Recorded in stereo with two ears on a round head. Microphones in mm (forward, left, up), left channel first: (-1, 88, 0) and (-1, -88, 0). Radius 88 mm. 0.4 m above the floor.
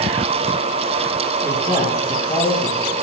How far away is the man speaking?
About 3 m.